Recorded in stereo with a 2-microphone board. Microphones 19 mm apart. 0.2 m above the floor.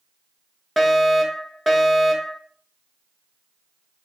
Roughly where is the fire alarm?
Centre.